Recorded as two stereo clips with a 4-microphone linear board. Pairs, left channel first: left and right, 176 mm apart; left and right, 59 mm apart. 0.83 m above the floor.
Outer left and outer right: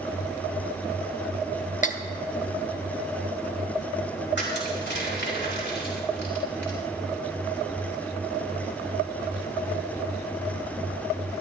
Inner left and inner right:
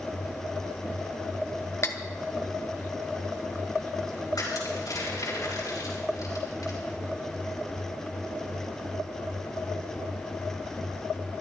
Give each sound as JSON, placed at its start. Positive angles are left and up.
{"t": 1.8, "sound": "cutlery clinking", "side_deg": 45, "distance_m": 0.9}
{"t": 4.3, "sound": "crushing", "side_deg": 80, "distance_m": 4.5}